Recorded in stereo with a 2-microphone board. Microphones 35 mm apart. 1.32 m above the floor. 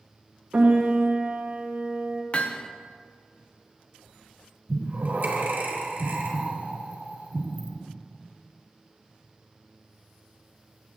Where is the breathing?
55° right (ahead or behind), 1.8 m.